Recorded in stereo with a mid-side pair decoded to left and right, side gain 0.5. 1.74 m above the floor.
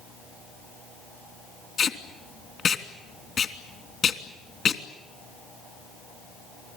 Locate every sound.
1.8 s tape being pulled: 45° left, 3 m